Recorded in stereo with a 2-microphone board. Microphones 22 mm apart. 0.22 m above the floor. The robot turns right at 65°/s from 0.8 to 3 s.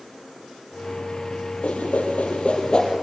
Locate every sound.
1.6 s a whoosh: 65° left (ahead or behind), 4.5 m; by 2.9 s 30° left (ahead or behind), 4.5 m